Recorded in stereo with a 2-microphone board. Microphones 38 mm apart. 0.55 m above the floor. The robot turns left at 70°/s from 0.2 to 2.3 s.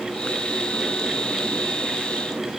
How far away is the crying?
No crying in this recording.